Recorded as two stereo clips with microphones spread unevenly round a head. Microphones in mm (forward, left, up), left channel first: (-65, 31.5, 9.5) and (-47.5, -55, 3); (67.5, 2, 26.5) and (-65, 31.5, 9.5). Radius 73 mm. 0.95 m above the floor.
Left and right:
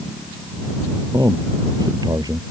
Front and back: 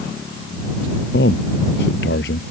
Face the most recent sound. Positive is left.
turn(degrees=-10)